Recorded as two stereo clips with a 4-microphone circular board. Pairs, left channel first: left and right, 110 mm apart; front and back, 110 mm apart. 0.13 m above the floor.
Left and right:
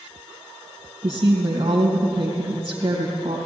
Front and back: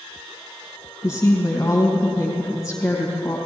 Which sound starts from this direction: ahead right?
A woman speaking, at 1.0 s.